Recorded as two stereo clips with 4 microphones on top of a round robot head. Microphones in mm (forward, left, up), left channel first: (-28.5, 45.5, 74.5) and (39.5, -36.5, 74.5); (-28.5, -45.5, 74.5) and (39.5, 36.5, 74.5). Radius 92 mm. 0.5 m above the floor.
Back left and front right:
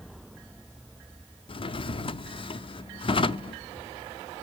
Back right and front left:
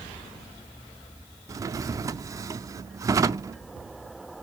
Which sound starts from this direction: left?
A drawer, at 1.5 s.